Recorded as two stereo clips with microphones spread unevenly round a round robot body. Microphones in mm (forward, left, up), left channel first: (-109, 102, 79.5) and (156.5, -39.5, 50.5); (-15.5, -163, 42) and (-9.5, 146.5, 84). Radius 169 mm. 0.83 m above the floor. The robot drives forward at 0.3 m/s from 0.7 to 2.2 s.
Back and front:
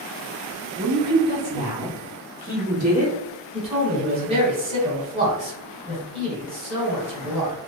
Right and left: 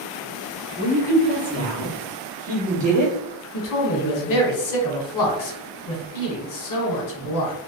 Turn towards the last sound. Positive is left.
turn(degrees=-100)